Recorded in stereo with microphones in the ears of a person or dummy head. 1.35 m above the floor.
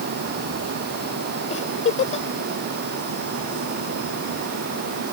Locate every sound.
1.5 s a giggle: 35° left (ahead or behind)